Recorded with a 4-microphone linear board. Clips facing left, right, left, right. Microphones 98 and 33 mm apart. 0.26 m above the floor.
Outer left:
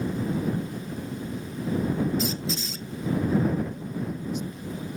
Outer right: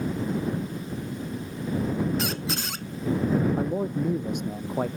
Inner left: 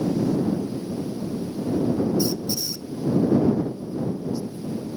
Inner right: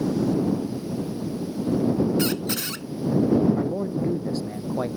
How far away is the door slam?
No door slam in this recording.